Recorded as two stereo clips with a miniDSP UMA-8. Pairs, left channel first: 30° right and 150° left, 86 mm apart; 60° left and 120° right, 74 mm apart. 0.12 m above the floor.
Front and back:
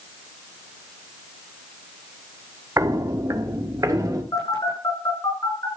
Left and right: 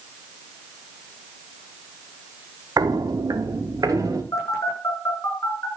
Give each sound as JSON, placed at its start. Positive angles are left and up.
{"t": 2.8, "sound": "footsteps", "azimuth_deg": -155, "distance_m": 2.0}
{"t": 4.3, "sound": "a phone buzzing", "azimuth_deg": 15, "distance_m": 8.5}